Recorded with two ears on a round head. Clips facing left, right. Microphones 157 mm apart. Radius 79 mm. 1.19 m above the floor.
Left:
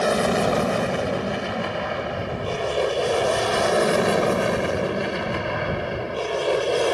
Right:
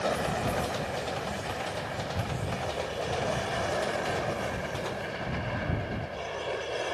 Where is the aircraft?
75° left (ahead or behind); by 6.9 s 70° left (ahead or behind).